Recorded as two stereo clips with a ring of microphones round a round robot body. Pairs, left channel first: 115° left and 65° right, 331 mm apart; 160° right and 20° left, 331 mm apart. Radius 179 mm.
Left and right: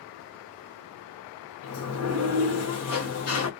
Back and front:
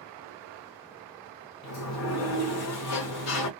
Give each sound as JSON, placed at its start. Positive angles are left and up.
{"t": 1.6, "sound": "a sliding door", "azimuth_deg": 160, "distance_m": 0.9}